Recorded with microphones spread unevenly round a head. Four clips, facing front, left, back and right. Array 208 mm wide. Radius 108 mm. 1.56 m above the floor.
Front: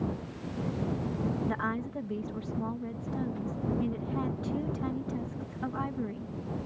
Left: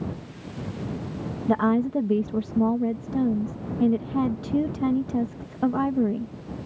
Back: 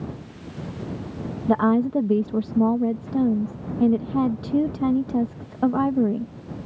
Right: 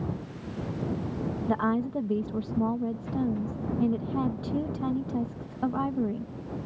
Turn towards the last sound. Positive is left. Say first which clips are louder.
# left 6 dB, back 14 dB
turn(degrees=160)